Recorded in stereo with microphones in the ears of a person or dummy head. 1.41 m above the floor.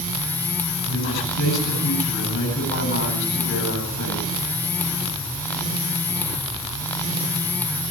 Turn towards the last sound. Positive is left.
turn(degrees=85)